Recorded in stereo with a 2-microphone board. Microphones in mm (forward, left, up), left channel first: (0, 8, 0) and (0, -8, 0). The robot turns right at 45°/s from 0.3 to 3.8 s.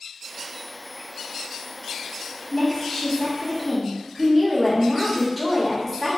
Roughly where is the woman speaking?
Behind left.